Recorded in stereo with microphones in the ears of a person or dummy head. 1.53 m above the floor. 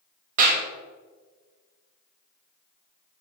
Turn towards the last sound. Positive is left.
turn(degrees=-45)  # may be behind; listen again after turning